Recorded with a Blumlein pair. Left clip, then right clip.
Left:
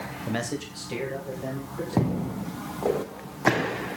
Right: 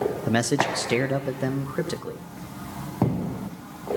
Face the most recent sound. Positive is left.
turn(degrees=-40)